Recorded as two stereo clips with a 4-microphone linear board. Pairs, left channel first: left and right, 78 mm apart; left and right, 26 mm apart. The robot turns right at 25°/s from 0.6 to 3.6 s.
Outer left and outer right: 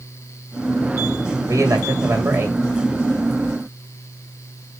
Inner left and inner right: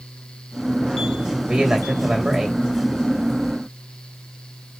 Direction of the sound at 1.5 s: 45° right (ahead or behind).